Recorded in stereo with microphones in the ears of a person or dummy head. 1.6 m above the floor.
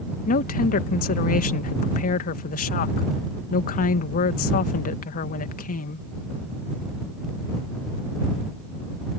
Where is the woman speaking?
50° left (ahead or behind).